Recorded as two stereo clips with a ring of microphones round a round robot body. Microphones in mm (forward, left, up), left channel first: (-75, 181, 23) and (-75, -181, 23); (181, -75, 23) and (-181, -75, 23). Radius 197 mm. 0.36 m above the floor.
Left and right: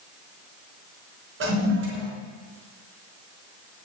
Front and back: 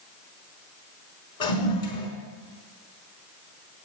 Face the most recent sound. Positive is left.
turn(degrees=-30)